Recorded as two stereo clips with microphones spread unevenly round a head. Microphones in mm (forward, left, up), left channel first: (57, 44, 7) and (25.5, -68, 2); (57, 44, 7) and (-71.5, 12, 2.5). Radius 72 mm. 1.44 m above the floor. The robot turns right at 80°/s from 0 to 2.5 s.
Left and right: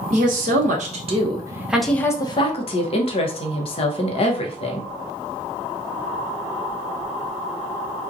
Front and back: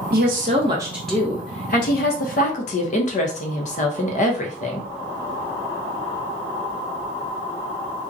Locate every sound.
0.1 s a woman speaking: 150° right, 0.7 m; by 4.9 s 40° left, 0.7 m